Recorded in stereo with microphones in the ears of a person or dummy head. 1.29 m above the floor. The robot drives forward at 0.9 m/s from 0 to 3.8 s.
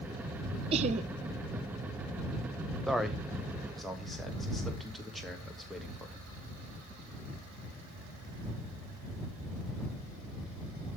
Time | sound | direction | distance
0.7 | laughter | 30° right (ahead or behind) | 0.6 m
2.9 | a man speaking | centre (ahead or behind) | 0.8 m